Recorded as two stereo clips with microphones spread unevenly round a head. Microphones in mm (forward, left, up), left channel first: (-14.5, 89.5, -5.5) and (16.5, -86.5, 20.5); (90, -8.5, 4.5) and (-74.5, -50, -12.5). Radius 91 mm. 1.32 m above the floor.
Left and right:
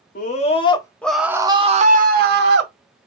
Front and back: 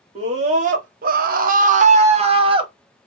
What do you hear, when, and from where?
0.1 s a scream: 140° left, 1.2 m; by 2.7 s 110° right, 1.4 m